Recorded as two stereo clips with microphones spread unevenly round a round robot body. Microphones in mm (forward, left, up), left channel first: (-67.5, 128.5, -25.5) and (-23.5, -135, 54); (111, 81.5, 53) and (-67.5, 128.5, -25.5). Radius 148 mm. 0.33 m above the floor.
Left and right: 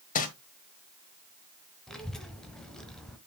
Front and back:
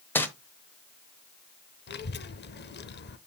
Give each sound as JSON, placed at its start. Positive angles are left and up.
{"t": 0.1, "sound": "crumpling", "azimuth_deg": 85, "distance_m": 1.1}
{"t": 1.9, "sound": "a child speaking", "azimuth_deg": 25, "distance_m": 0.8}